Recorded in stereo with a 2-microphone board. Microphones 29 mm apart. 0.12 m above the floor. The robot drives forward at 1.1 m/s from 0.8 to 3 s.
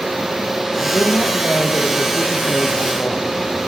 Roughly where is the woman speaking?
Left.